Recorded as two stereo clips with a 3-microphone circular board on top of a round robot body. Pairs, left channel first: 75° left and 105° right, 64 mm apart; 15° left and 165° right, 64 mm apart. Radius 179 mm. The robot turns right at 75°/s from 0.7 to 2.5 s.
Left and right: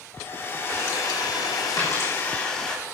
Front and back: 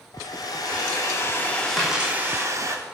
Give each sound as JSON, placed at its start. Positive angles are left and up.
{"t": 0.1, "sound": "a hair dryer", "azimuth_deg": 20, "distance_m": 2.5}
{"t": 1.8, "sound": "a dropped coin", "azimuth_deg": 105, "distance_m": 6.5}